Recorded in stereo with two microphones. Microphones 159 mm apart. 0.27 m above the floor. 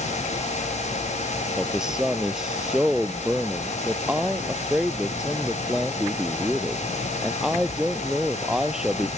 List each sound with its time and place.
1.6 s a man speaking: 5° right (ahead or behind)